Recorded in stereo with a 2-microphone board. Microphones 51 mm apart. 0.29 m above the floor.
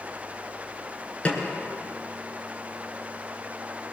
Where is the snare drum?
25° left (ahead or behind), 4 m.